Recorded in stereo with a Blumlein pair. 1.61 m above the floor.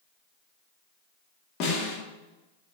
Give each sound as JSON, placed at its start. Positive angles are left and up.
{"t": 1.6, "sound": "a snare drum", "azimuth_deg": 35, "distance_m": 3.5}